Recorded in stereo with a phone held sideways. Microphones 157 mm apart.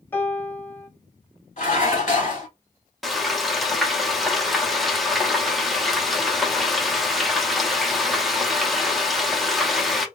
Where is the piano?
15° left (ahead or behind), 0.8 m.